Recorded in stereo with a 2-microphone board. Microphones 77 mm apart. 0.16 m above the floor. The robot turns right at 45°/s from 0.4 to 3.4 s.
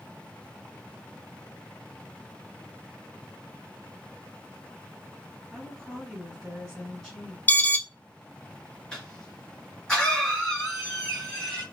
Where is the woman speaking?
Centre (ahead or behind), 1.8 m.